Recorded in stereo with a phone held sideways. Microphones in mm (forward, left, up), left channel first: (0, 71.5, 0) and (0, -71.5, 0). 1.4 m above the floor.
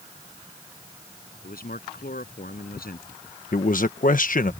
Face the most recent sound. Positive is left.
turn(degrees=65)  # may be behind; listen again after turning